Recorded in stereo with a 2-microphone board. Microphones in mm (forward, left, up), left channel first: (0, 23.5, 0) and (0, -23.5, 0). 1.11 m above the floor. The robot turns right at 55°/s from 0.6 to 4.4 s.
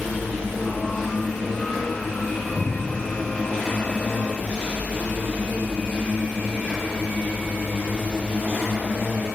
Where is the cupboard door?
25° left (ahead or behind), 1.0 m; by 3.0 s 5° left (ahead or behind), 1.0 m.